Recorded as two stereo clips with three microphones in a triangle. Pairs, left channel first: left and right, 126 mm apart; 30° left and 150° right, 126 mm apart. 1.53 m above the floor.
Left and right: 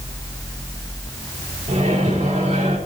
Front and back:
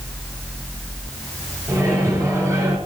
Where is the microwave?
85° right, 4.5 m.